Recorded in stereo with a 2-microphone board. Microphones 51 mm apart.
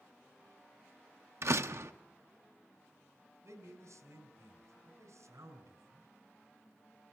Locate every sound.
1.4 s a door slam: 65° right (ahead or behind), 0.7 m
3.4 s a man speaking: 80° right, 4 m